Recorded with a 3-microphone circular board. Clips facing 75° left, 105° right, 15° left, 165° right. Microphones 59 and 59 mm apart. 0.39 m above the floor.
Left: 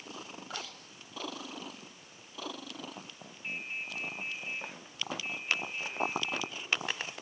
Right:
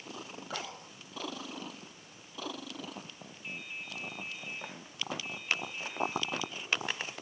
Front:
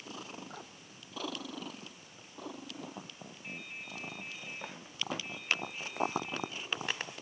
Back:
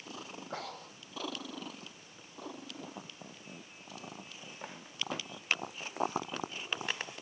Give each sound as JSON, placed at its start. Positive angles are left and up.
{"t": 0.5, "sound": "breathing", "azimuth_deg": -170}
{"t": 3.4, "sound": "dripping", "azimuth_deg": 20}